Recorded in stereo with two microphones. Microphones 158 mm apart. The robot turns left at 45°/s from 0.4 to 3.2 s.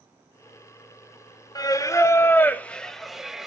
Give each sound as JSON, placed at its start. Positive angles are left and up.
{"t": 1.6, "sound": "singing", "side_deg": 25, "distance_m": 0.5}